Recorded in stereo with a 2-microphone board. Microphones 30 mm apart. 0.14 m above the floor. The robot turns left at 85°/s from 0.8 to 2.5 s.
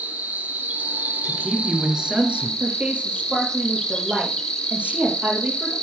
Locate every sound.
0.0 s an insect: 50° right, 2.5 m; by 5.8 s 165° left, 2.5 m
1.2 s a man speaking: 25° left, 2 m; by 2.5 s 85° right, 2 m
2.6 s a woman speaking: 45° right (ahead or behind), 3 m